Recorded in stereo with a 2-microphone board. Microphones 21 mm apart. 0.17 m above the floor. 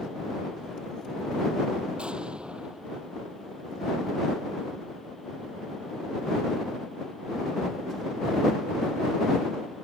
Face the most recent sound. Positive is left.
turn(degrees=-65)  # may be behind; listen again after turning